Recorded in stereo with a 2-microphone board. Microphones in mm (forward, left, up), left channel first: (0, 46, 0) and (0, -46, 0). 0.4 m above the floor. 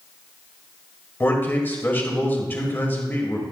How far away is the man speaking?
About 1.8 m.